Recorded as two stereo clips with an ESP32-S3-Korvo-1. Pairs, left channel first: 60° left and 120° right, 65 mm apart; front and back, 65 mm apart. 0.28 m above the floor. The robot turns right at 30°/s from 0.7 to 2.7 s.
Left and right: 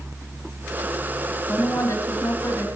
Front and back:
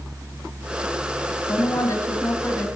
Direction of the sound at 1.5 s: 10° left.